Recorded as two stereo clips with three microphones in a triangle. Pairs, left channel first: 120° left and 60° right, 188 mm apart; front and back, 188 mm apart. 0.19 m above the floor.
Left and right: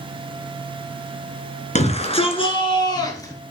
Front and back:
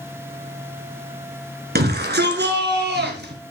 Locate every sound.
1.8 s a shout: 165° left, 1.9 m; by 3.3 s 170° right, 2.5 m